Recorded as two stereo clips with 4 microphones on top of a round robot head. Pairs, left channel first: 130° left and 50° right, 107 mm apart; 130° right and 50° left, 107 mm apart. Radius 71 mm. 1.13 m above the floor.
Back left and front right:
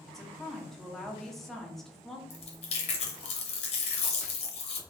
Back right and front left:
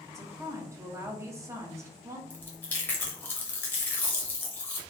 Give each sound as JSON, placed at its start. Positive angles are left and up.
{"t": 0.1, "sound": "a woman speaking", "azimuth_deg": 50, "distance_m": 0.6}
{"t": 2.3, "sound": "chewing", "azimuth_deg": 155, "distance_m": 0.6}